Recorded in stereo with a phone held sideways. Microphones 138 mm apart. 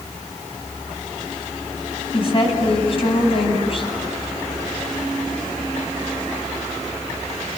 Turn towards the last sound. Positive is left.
turn(degrees=45)  # may be behind; listen again after turning